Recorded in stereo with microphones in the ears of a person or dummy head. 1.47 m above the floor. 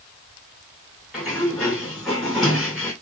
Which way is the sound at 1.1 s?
Centre (ahead or behind).